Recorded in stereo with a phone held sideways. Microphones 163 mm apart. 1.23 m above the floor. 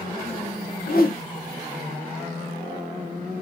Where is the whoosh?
65° left (ahead or behind), 1.2 m.